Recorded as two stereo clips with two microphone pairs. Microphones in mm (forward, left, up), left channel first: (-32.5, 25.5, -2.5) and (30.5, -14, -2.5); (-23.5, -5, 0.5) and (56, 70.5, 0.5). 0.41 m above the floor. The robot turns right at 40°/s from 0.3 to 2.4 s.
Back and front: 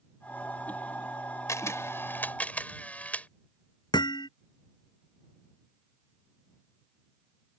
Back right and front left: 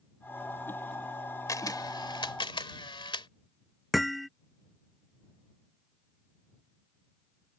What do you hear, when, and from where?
1.5 s a camera shutter: 175° left; by 3.3 s 150° right
3.9 s hammering: 130° left